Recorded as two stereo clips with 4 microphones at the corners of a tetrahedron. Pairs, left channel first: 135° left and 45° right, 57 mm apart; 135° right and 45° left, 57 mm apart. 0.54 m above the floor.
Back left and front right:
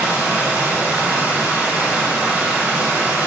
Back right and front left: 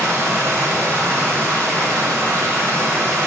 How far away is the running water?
About 2 m.